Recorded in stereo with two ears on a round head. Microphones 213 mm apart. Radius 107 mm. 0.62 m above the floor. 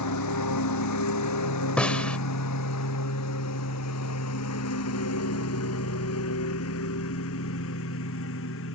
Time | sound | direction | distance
0.0 | a lawn mower | 85° left | ?
1.8 | a snare drum | 5° left (ahead or behind) | ?